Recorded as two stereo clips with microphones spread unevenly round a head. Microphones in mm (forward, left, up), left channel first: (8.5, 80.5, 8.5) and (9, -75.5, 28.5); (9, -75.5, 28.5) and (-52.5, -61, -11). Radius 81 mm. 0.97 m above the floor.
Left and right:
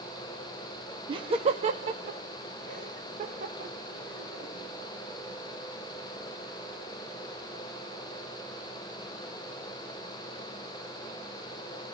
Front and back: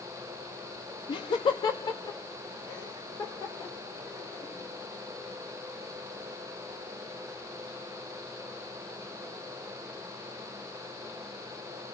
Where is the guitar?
I don't hear a guitar.